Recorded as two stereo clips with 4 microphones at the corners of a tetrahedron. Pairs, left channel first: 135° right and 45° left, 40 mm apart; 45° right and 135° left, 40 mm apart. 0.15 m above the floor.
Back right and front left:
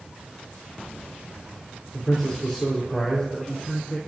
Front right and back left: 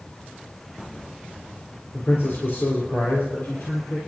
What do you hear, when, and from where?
1.9 s a man speaking: 55° right, 4 m